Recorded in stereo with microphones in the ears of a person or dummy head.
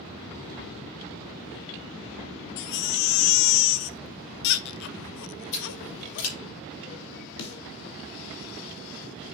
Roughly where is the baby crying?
Left.